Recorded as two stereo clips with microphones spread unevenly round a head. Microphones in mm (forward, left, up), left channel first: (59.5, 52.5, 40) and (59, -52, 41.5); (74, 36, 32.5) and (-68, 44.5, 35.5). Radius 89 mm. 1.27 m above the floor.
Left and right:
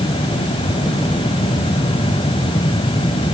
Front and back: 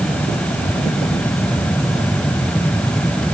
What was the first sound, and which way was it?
Only background noise.